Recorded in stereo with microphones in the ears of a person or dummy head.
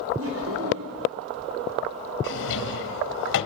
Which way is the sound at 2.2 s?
70° left (ahead or behind).